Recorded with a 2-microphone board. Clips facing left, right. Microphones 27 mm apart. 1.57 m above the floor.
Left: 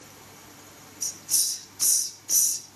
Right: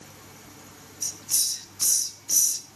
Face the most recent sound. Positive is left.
turn(degrees=-25)  # may be behind; listen again after turning